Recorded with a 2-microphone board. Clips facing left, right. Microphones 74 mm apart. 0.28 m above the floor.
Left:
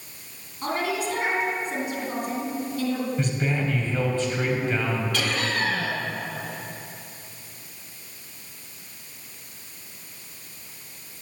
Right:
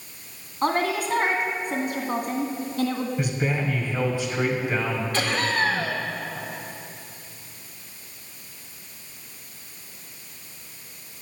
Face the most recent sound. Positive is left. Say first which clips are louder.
# right 2 dB
turn(degrees=-40)  # may be behind; listen again after turning